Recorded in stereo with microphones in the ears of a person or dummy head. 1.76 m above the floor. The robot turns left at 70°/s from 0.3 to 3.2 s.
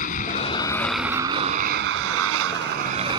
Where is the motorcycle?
45° left; by 3.2 s 155° right.